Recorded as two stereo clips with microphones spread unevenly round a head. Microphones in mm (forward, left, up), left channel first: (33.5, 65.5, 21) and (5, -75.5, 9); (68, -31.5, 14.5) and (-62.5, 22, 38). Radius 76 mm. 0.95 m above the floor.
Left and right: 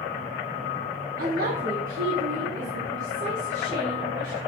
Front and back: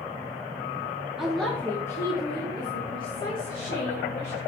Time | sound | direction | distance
1.2 | a woman speaking | 110° right | 1.4 m